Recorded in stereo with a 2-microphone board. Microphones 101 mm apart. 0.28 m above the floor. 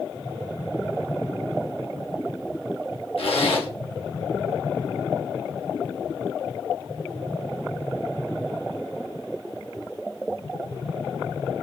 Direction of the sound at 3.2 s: 70° left (ahead or behind).